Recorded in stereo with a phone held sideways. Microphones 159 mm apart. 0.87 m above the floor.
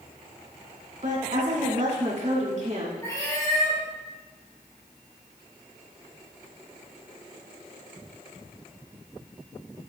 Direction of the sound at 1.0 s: 55° right (ahead or behind).